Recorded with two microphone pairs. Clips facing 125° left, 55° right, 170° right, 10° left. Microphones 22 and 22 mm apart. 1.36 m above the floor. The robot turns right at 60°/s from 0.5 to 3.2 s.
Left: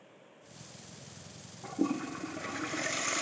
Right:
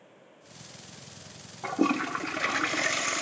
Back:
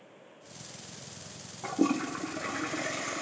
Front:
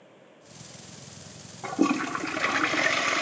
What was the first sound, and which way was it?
A toilet flushing, 65° right.